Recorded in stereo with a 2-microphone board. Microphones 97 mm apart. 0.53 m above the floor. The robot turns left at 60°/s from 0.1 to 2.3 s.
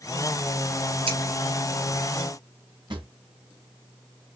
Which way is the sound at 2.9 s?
55° right (ahead or behind).